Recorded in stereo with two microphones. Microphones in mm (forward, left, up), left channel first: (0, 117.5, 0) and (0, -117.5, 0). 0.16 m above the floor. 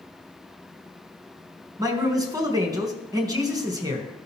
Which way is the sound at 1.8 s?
15° right (ahead or behind).